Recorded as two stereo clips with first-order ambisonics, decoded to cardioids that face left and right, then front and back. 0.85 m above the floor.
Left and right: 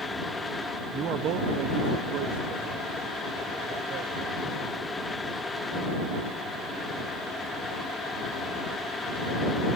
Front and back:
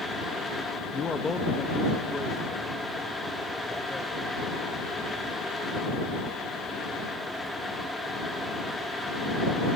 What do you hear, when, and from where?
0.9 s a man speaking: 40° right; by 7.0 s 85° right